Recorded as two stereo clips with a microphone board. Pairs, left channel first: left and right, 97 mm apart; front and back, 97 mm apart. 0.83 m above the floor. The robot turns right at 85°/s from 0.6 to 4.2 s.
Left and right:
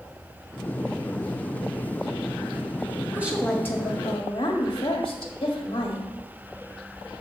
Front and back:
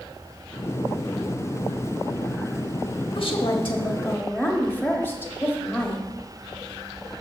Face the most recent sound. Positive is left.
turn(degrees=65)